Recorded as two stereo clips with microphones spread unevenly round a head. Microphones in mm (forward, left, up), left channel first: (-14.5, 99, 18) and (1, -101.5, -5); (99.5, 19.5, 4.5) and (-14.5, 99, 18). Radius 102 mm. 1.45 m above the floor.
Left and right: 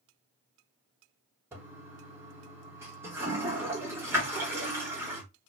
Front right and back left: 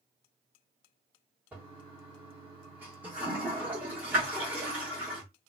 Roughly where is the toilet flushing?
Behind.